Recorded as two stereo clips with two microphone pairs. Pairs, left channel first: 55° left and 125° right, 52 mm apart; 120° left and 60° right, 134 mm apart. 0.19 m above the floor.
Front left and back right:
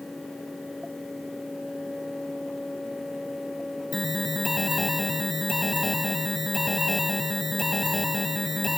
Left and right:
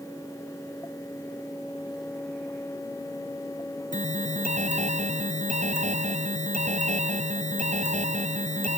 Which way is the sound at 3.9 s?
35° right.